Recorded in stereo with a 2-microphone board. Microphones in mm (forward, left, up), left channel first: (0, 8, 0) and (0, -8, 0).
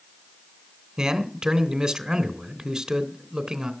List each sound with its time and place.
1.0 s a man speaking: 40° right (ahead or behind), 3 m